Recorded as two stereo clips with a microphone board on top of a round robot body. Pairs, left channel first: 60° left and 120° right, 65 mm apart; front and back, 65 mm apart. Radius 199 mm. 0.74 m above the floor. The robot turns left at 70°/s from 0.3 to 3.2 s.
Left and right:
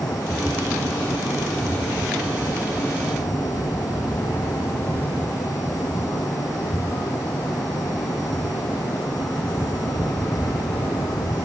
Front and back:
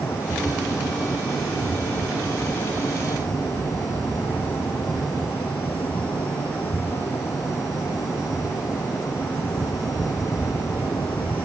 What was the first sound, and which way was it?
Only background noise.